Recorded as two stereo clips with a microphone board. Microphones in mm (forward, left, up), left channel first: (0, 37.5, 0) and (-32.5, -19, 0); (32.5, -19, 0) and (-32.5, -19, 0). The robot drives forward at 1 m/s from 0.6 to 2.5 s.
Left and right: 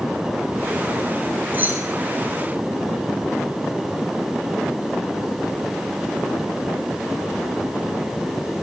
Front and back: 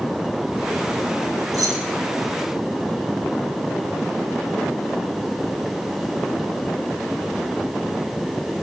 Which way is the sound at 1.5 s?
175° right.